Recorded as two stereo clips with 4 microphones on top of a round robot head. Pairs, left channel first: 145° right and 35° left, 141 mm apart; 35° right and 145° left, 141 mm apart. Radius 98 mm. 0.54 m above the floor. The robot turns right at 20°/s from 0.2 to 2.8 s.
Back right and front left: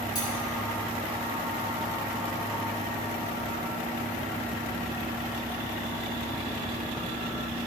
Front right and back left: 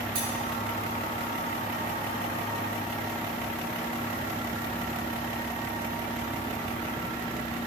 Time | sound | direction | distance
0.1 | cutlery clinking | 150° left | 6.5 m